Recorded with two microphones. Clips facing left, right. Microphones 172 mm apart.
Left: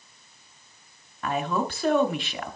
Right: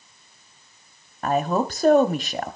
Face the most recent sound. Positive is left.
turn(degrees=-40)  # may be behind; listen again after turning